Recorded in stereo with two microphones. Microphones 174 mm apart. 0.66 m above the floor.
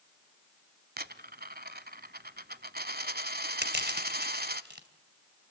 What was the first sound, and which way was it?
A dropped coin, 65° right (ahead or behind).